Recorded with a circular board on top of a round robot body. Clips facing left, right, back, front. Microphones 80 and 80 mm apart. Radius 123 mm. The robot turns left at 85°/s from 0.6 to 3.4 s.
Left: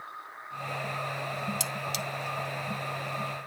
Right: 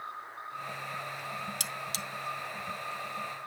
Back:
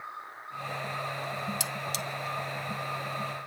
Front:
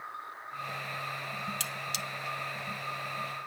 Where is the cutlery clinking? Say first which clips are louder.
Left 4 dB, back 3 dB; 110° right, 1.1 m; by 2.0 s 145° right, 1.1 m.